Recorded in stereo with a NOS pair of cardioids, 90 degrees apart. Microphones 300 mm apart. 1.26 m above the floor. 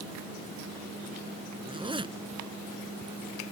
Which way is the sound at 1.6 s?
15° right.